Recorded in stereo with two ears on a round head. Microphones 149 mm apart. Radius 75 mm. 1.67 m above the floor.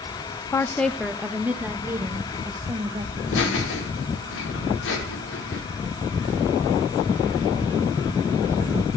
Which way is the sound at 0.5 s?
15° left (ahead or behind).